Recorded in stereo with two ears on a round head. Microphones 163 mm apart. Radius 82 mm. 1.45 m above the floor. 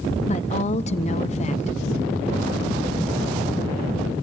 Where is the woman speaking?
40° left (ahead or behind), 0.8 m.